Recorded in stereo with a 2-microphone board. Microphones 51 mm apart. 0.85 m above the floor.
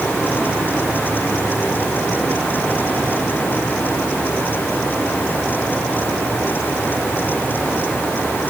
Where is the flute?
I don't hear a flute.